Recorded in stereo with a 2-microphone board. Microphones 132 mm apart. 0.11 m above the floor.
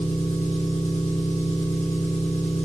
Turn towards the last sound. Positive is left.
turn(degrees=75)  # may be behind; listen again after turning